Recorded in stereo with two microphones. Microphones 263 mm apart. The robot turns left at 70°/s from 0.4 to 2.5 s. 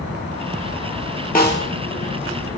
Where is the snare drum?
35° left (ahead or behind), 0.6 m; by 1.7 s 55° left (ahead or behind), 0.6 m.